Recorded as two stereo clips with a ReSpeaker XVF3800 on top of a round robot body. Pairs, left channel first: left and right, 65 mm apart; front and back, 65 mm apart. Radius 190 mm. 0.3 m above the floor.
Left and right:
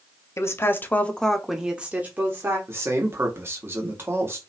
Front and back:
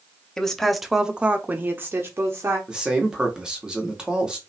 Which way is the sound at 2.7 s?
110° right.